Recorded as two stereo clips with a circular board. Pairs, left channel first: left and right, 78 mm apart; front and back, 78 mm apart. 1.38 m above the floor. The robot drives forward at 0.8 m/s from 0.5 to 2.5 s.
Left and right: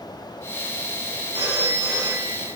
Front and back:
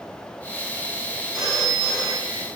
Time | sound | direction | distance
1.3 | a phone ringing | 95° right | 2 m